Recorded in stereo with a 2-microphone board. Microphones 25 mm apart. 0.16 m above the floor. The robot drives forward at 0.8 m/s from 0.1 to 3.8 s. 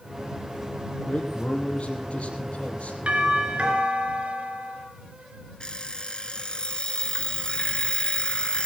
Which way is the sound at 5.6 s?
40° left (ahead or behind).